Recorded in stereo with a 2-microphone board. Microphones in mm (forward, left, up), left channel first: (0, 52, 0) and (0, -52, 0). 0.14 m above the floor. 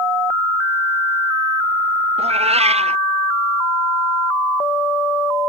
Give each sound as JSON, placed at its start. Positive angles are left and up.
{"t": 2.2, "sound": "a cat meowing", "side_deg": -85}